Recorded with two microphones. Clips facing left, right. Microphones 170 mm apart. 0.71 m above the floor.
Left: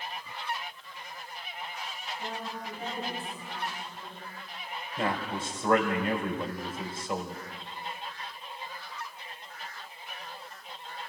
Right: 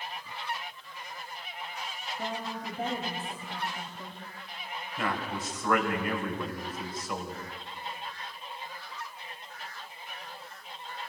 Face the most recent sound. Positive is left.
turn(degrees=30)  # may be behind; listen again after turning